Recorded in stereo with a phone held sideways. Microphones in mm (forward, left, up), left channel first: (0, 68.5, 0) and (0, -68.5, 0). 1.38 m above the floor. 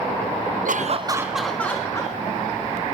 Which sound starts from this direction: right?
Laughter, at 0.7 s.